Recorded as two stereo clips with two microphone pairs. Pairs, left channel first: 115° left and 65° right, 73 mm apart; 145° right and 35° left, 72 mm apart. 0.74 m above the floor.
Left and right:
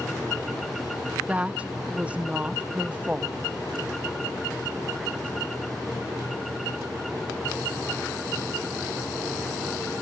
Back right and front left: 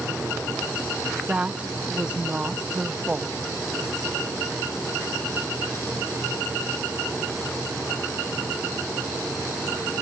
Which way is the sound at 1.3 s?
15° right.